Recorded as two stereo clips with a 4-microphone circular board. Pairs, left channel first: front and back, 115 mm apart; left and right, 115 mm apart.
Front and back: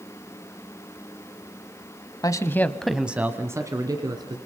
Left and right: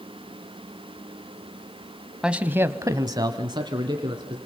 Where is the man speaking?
10° right, 1.2 m; by 4.4 s 135° right, 2.5 m.